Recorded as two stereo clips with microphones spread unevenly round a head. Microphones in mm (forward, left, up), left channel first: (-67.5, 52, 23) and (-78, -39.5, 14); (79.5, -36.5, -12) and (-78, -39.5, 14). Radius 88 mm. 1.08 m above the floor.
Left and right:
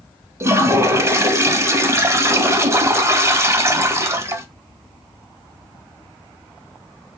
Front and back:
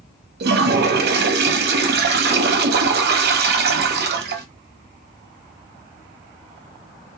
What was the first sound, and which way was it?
A toilet flushing, 160° right.